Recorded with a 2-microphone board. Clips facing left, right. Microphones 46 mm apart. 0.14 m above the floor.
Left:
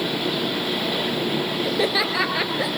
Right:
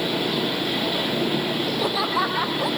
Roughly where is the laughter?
Left.